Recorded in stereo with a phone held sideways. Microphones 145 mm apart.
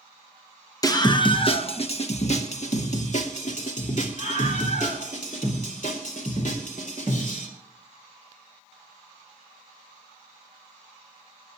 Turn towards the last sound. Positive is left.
turn(degrees=65)  # may be behind; listen again after turning